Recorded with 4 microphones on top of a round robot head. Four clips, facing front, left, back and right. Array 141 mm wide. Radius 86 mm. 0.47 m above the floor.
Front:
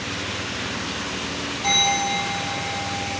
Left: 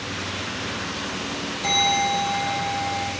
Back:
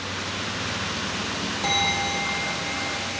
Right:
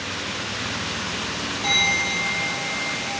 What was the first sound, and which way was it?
A bell, 160° right.